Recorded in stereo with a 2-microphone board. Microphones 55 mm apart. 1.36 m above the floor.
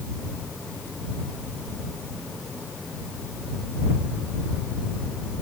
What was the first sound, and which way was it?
Only background noise.